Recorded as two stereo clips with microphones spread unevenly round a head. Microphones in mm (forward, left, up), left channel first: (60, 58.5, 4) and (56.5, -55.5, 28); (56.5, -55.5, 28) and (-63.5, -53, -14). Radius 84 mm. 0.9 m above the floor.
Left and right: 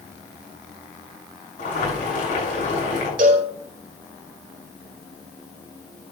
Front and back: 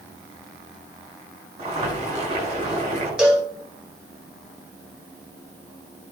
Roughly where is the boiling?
Behind left.